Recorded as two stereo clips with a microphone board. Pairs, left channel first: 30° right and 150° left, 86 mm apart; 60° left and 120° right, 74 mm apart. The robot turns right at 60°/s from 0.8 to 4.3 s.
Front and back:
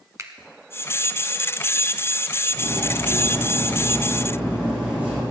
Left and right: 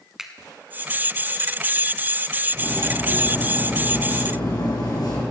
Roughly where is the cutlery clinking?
Ahead right.